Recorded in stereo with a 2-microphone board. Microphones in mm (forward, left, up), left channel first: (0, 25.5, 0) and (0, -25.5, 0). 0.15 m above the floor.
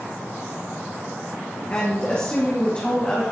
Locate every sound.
1.7 s a woman speaking: 30° left (ahead or behind), 2.5 m